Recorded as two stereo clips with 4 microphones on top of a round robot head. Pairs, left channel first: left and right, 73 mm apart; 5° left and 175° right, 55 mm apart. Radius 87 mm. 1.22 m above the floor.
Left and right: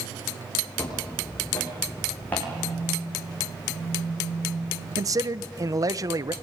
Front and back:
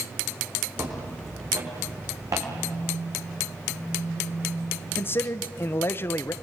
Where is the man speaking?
50° right, 0.7 m.